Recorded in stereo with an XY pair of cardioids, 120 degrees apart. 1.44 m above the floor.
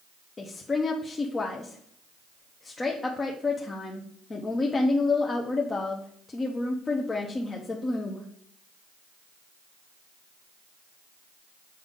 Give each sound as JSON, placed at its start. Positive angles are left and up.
{"t": 0.4, "sound": "a woman speaking", "azimuth_deg": 25, "distance_m": 0.8}